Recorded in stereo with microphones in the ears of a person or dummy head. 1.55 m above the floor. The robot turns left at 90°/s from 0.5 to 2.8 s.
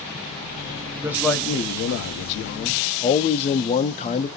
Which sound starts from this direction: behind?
A man speaking, at 1.0 s.